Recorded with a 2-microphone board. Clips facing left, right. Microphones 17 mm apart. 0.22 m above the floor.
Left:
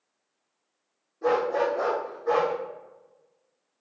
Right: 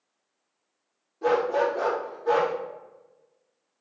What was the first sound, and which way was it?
A dog barking, 40° right (ahead or behind).